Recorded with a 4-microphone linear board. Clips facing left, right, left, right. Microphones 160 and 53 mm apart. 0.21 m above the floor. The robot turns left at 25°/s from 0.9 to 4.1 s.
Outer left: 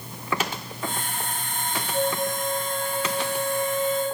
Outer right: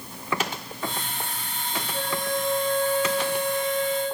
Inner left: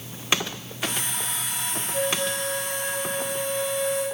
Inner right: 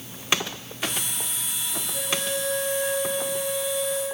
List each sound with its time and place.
1.9 s a flute: 165° left, 8.5 m; by 4.0 s 110° left, 8.5 m